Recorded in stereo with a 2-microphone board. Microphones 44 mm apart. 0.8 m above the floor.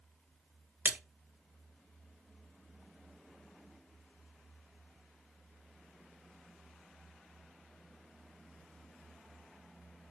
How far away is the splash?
About 0.6 m.